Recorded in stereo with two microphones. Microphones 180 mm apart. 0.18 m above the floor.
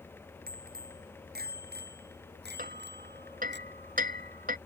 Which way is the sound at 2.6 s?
55° right (ahead or behind).